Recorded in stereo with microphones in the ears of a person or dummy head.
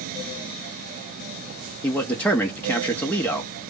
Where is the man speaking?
10° left (ahead or behind), 0.7 m.